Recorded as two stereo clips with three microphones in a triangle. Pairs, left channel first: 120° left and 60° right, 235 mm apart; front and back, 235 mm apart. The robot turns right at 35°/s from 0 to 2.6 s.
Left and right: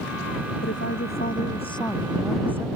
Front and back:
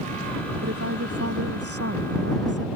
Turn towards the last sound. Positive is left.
turn(degrees=-140)